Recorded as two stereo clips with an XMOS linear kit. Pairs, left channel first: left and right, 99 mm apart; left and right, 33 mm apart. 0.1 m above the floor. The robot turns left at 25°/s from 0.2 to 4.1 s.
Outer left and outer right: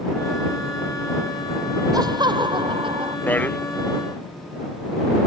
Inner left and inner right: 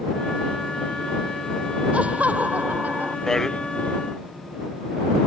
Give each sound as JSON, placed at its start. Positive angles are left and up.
{"t": 1.9, "sound": "laughter", "azimuth_deg": -45}
{"t": 3.3, "sound": "a man speaking", "side_deg": 20}